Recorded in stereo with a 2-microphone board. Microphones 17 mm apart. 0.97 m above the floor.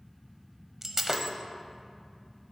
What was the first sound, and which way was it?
Breaking glass, 20° right (ahead or behind).